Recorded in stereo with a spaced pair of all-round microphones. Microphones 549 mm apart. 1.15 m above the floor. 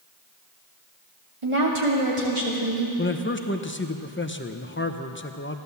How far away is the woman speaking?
About 2.5 m.